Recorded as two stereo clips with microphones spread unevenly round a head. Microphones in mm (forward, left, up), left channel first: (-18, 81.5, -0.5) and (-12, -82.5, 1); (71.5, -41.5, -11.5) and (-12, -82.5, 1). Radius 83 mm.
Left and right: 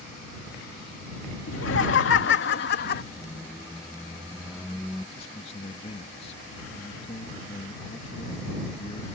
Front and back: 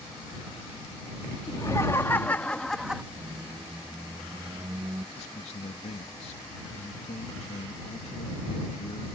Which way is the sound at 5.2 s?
35° left.